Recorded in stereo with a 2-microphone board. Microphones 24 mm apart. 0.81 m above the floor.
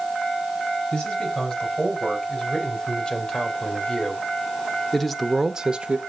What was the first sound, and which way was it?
A man speaking, 50° left (ahead or behind).